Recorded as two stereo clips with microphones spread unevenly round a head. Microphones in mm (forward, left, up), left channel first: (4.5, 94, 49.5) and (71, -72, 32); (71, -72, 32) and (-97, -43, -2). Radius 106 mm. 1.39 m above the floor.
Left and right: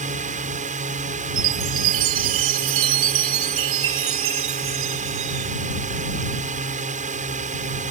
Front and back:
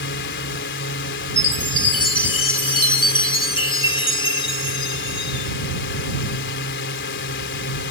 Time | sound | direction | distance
0.0 | a drone | 20° right | ?
1.4 | a chime | 65° right | ?